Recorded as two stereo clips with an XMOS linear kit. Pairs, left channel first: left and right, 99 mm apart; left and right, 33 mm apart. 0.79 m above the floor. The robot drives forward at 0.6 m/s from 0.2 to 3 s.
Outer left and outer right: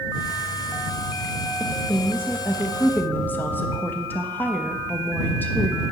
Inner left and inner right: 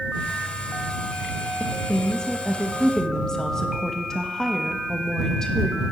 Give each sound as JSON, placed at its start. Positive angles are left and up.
{"t": 1.6, "sound": "a woman speaking", "side_deg": 15, "distance_m": 1.1}